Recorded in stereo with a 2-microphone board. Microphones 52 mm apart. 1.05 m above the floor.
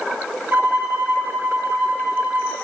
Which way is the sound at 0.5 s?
50° right (ahead or behind).